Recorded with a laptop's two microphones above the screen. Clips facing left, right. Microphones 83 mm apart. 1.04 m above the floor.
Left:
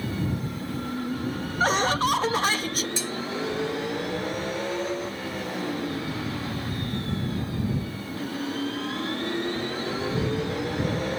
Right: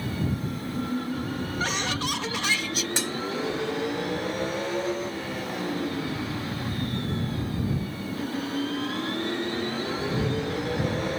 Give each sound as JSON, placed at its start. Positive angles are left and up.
{"t": 1.6, "sound": "laughter", "side_deg": 40}
{"t": 3.0, "sound": "dishes clattering", "side_deg": -85}